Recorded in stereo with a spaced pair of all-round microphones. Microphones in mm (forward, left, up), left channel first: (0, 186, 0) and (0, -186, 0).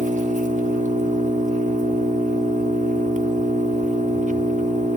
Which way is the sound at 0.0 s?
20° right (ahead or behind).